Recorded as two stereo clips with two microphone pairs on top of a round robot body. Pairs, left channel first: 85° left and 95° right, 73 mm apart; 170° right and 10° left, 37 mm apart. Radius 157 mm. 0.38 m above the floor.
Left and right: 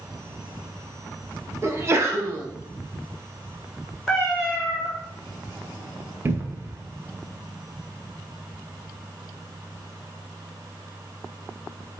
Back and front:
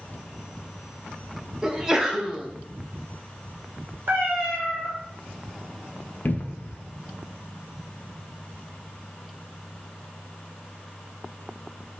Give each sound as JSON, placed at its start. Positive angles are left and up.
{"t": 1.6, "sound": "a sneeze", "azimuth_deg": -75, "distance_m": 0.9}
{"t": 4.1, "sound": "a cat meowing", "azimuth_deg": -10, "distance_m": 1.2}
{"t": 6.2, "sound": "a cupboard door", "azimuth_deg": -155, "distance_m": 0.6}